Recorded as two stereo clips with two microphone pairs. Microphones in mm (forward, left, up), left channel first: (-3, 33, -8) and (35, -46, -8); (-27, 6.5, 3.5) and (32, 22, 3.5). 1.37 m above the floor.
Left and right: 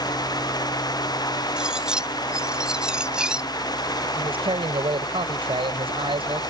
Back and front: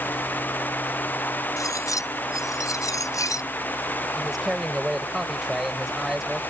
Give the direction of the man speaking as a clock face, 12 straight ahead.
2 o'clock.